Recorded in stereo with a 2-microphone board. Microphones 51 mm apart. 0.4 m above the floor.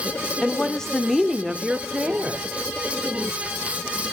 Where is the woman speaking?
15° left (ahead or behind), 0.9 m; by 2.5 s 25° right (ahead or behind), 1.1 m.